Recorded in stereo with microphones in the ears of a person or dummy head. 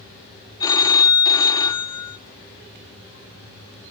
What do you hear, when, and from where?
0.6 s a phone ringing: 15° left (ahead or behind), 0.6 m